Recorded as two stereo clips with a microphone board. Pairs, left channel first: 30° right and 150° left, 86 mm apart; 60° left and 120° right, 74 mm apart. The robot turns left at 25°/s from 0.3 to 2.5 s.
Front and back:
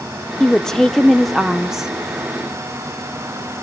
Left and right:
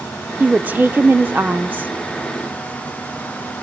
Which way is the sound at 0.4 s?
95° right.